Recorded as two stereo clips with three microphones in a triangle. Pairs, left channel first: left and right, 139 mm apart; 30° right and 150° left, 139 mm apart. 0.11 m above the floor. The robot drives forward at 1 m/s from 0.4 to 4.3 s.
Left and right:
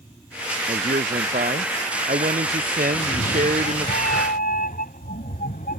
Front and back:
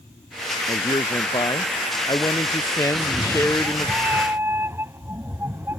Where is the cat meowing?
65° left; by 5.8 s 75° left.